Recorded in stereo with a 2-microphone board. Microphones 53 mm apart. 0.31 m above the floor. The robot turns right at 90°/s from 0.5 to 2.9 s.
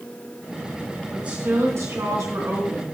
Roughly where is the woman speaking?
Behind.